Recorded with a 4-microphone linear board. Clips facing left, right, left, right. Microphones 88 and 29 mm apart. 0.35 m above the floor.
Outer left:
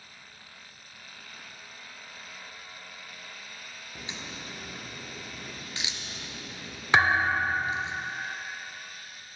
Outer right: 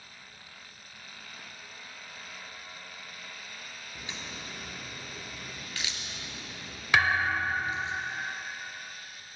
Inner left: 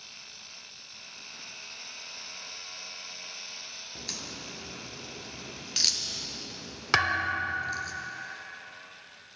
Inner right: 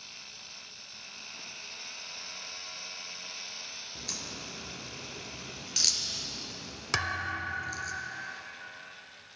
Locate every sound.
4.0 s a crack: 20° left (ahead or behind), 1.4 m
6.9 s a thud: 30° left (ahead or behind), 0.6 m